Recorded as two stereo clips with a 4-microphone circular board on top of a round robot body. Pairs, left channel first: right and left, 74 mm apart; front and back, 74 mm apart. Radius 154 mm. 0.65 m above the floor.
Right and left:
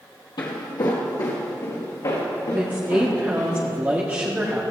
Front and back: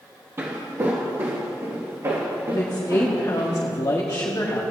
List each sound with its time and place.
0.4 s footsteps: 120° right, 1.6 m; by 3.5 s 130° right, 6.5 m
2.5 s a woman speaking: 30° left, 1.5 m